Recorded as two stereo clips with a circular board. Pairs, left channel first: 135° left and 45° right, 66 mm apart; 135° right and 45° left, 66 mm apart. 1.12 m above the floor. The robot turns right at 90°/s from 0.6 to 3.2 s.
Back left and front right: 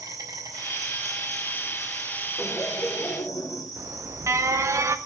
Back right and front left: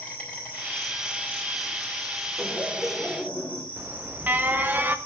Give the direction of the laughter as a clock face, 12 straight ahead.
9 o'clock.